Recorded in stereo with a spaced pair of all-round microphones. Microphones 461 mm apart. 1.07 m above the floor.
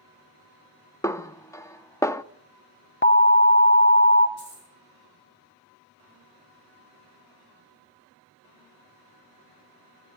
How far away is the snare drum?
About 0.5 m.